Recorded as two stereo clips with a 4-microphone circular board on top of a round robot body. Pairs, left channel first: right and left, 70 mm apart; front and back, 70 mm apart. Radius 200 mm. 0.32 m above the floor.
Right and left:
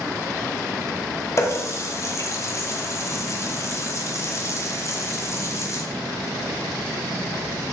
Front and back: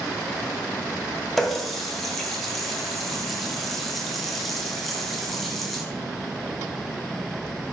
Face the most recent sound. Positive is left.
turn(degrees=-85)